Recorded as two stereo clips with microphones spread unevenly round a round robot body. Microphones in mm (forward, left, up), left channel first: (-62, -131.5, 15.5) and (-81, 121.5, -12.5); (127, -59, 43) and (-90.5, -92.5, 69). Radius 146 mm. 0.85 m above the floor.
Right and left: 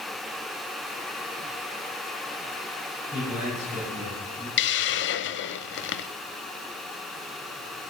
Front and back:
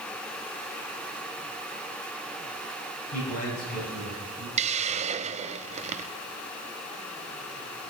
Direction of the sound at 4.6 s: 120° right.